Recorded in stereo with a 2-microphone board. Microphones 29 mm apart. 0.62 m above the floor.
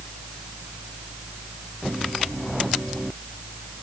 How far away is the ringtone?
No ringtone in this recording.